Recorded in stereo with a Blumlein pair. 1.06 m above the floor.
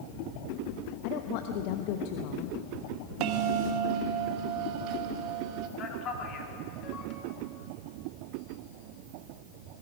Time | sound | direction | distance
1.0 | a woman speaking | 45° left | 1.1 m
3.2 | a bell | 40° right | 1.4 m
5.8 | a man speaking | 30° left | 3 m